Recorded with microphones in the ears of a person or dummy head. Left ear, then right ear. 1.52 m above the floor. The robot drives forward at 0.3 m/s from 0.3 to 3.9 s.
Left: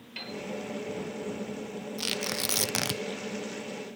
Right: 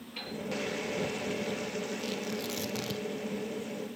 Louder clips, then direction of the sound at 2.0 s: Left 4 dB; 65° left (ahead or behind).